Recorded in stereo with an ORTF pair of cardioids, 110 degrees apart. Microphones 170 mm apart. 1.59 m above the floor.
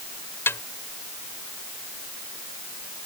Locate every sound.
0.5 s a snare drum: 15° left